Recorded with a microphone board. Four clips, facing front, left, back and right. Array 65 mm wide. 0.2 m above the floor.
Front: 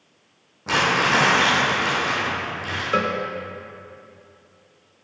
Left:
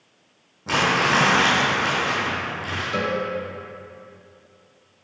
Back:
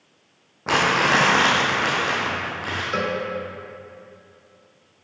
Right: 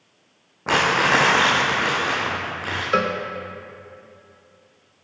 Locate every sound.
0.7 s crumpling: 120° right, 3 m
2.9 s a cowbell: 70° right, 0.9 m